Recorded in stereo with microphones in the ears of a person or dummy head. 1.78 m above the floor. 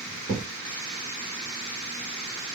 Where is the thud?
20° right (ahead or behind), 1.8 m.